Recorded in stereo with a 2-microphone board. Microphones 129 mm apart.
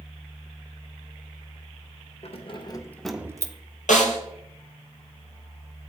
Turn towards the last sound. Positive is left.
turn(degrees=80)